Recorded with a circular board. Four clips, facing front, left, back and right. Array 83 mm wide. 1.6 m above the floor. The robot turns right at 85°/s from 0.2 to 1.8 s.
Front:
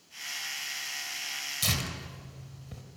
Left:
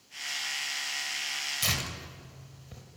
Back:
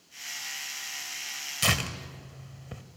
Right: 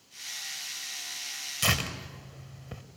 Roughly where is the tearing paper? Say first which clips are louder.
Right 7 dB, back 6 dB; behind right.